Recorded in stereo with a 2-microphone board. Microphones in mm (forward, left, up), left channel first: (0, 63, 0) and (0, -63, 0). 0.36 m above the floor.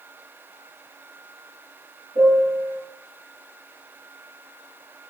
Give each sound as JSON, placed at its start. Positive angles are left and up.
{"t": 2.1, "sound": "a piano", "side_deg": -75, "distance_m": 6.0}